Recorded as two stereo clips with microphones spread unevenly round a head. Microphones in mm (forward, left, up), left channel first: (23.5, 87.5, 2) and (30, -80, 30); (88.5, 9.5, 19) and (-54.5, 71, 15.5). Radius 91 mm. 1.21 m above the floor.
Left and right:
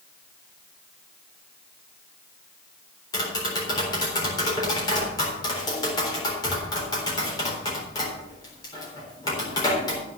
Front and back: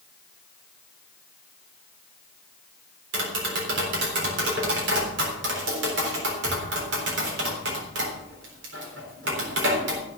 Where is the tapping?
165° left, 4 m.